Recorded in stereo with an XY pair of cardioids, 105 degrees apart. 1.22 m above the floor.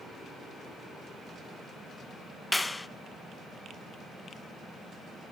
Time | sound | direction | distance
2.5 | a clap | 15° left | 0.7 m